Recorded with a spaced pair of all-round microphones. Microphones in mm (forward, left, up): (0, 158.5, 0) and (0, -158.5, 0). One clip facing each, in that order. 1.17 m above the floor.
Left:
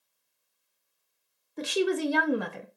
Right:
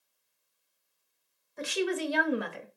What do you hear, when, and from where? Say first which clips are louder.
1.6 s a woman speaking: left 4 dB; 45° left (ahead or behind), 0.8 m